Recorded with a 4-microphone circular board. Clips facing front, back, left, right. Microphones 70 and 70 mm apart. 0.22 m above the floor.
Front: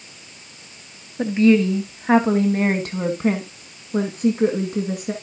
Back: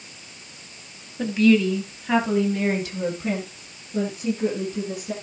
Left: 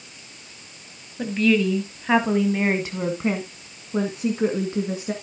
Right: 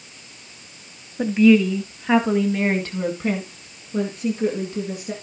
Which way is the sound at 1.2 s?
35° right.